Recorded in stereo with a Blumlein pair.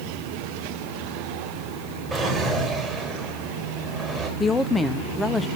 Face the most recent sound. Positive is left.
turn(degrees=10)